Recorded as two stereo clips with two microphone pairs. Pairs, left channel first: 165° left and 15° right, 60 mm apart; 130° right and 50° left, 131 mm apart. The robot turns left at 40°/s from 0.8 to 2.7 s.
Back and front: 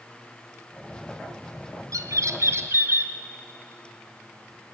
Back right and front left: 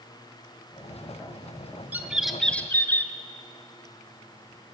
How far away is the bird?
About 1.3 m.